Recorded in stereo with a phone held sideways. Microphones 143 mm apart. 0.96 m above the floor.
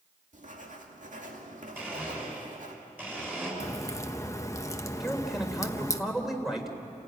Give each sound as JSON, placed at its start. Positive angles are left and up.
{"t": 0.3, "sound": "writing", "side_deg": -60, "distance_m": 2.5}
{"t": 1.8, "sound": "a blender", "side_deg": -10, "distance_m": 6.5}
{"t": 3.6, "sound": "a crack", "side_deg": 20, "distance_m": 0.9}
{"t": 5.0, "sound": "a man speaking", "side_deg": 0, "distance_m": 3.0}